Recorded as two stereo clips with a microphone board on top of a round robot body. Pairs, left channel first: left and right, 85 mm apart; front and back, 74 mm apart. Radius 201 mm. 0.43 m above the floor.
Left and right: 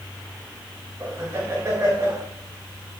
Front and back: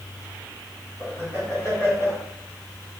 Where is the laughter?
35° right, 6.5 m.